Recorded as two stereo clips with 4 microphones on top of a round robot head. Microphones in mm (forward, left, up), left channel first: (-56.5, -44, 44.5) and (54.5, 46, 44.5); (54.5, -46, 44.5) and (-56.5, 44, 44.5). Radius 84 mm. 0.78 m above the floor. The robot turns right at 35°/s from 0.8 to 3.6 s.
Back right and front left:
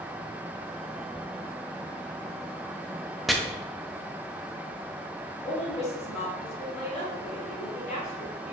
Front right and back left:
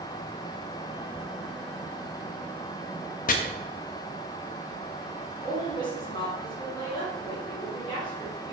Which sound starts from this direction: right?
A woman speaking, at 5.4 s.